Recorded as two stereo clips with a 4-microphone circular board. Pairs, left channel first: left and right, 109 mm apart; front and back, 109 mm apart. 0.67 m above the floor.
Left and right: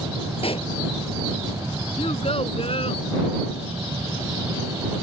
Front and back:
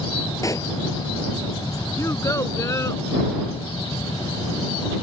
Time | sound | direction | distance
0.4 | a pop | 60° left | ?
2.0 | a child speaking | 65° left | ?